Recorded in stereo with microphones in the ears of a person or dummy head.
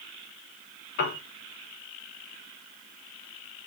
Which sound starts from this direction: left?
A piano, at 1.0 s.